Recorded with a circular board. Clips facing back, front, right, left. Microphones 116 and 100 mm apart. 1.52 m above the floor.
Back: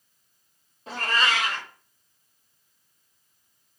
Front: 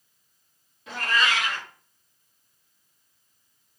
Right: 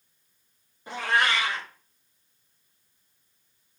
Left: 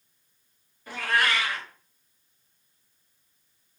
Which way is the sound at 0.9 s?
150° right.